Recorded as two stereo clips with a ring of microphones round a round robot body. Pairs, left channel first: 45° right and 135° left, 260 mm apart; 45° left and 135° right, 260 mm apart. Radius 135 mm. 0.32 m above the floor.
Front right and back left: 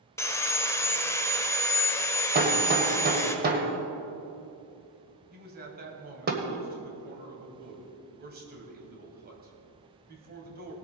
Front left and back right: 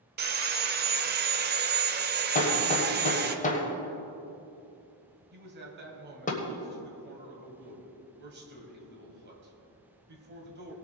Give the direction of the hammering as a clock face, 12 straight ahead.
9 o'clock.